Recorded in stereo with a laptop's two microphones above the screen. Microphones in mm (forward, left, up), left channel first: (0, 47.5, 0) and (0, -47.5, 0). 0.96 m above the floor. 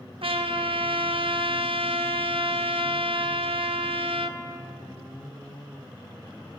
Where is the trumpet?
75° right (ahead or behind), 0.6 m.